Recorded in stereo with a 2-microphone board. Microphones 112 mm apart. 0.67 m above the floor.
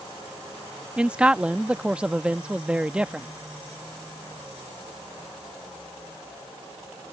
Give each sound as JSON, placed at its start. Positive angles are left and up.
{"t": 1.0, "sound": "a man speaking", "side_deg": -10}